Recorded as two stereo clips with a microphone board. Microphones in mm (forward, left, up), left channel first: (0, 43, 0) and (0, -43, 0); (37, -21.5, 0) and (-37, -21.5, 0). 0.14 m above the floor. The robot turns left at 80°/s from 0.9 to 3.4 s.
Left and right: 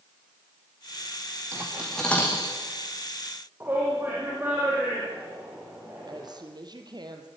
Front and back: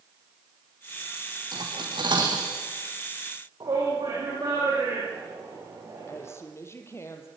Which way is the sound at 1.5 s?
145° right.